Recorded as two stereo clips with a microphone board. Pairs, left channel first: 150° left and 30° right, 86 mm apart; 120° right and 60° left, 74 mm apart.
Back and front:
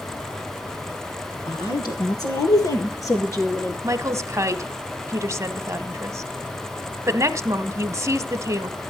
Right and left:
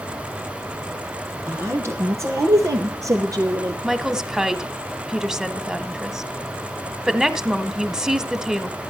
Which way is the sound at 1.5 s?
110° left.